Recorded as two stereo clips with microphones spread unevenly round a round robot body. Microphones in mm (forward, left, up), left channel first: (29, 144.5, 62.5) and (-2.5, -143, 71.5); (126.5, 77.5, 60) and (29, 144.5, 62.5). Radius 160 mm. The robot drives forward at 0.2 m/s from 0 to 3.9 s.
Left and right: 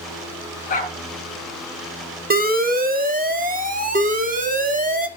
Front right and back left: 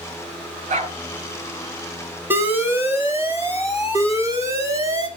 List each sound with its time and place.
0.7 s a dog barking: 150° left, 3.5 m
2.3 s an alarm: 145° right, 1.7 m; by 5.1 s 150° right, 1.9 m